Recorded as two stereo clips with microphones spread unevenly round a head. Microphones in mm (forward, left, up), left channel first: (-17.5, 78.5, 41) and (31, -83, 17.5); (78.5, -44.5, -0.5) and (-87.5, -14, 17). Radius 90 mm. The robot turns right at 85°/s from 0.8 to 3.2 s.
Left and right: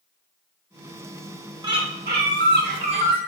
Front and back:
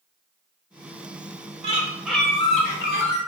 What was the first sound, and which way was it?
A bird, 140° right.